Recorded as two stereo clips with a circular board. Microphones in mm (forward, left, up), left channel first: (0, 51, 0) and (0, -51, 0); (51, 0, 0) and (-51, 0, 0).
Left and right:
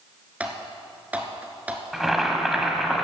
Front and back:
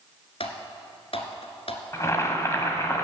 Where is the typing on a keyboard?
15° right, 1.1 m.